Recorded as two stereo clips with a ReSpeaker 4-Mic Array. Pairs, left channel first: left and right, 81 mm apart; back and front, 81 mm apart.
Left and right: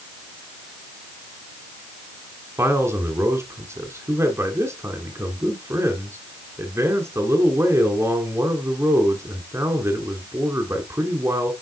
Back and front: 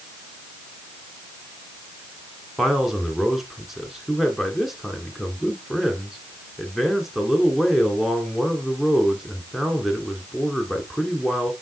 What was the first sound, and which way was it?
A man speaking, 85° right.